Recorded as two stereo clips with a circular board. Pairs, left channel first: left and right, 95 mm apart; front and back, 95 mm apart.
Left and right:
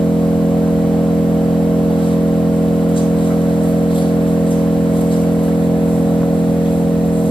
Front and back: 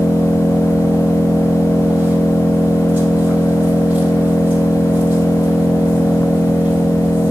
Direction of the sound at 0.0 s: 105° left.